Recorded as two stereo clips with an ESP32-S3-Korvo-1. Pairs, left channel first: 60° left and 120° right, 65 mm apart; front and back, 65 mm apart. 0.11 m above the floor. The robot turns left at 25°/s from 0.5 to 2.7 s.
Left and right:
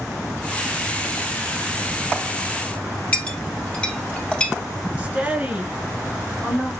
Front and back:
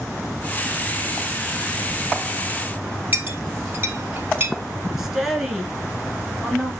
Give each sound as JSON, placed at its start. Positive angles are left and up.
{"t": 3.1, "sound": "a clink", "azimuth_deg": 130, "distance_m": 2.0}
{"t": 5.0, "sound": "a woman speaking", "azimuth_deg": -100, "distance_m": 1.5}